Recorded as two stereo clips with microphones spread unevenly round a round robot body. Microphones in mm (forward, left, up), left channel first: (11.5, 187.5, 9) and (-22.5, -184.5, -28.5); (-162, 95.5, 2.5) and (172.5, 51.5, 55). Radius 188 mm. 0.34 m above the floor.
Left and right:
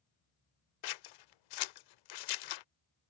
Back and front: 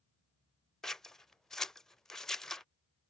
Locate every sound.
0.8 s scissors: 90° left